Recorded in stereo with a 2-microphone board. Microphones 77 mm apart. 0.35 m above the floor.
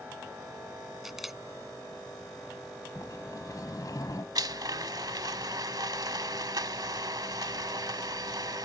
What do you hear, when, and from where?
1.0 s a camera shutter: 5° right (ahead or behind)
3.0 s a sliding door: 50° left (ahead or behind)
4.3 s a blender: 60° right (ahead or behind)